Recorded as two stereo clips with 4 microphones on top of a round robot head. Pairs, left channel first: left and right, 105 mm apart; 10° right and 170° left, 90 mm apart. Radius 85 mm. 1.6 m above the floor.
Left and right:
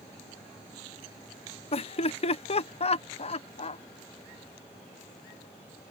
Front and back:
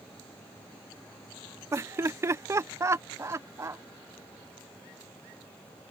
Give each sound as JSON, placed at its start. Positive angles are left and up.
{"t": 1.7, "sound": "laughter", "azimuth_deg": 115}